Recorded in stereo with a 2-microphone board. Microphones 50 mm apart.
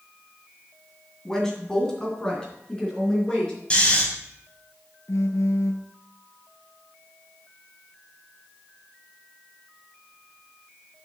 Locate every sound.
1.2 s a woman speaking: 10° left (ahead or behind), 2.0 m; by 3.5 s 15° left (ahead or behind), 4 m
3.7 s snoring: 25° left (ahead or behind), 2 m
5.1 s a phone buzzing: 75° left (ahead or behind), 0.8 m